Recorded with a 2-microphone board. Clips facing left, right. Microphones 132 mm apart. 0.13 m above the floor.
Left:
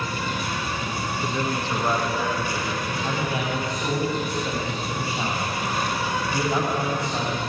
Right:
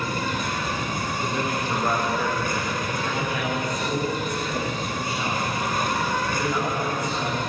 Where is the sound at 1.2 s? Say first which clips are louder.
Even; 10° right (ahead or behind), 6 m.